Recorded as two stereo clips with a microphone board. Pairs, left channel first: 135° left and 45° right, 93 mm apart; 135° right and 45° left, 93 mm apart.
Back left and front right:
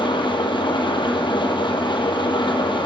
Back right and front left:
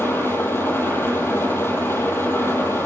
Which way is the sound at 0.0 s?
160° left.